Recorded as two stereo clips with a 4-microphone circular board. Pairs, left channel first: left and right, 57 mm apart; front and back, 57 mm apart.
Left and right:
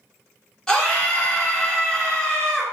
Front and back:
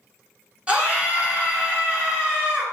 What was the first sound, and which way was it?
A scream, 150° left.